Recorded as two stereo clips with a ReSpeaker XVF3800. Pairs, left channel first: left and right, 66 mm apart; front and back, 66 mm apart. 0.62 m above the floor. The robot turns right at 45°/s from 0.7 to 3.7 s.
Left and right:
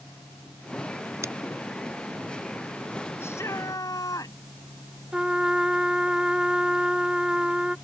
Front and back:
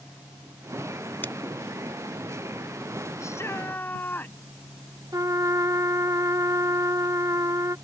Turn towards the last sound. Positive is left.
turn(degrees=-165)